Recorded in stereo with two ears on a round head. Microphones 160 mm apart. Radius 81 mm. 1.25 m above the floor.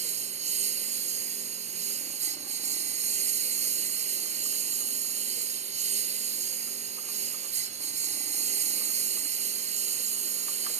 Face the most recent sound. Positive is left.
turn(degrees=-40)  # may be behind; listen again after turning